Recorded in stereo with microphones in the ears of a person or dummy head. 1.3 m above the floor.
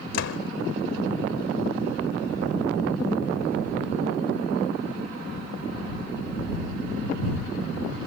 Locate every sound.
0.1 s a door slam: 75° left (ahead or behind)